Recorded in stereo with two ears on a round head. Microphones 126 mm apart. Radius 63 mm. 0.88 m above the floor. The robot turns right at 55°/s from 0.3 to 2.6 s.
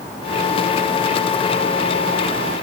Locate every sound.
Only background noise.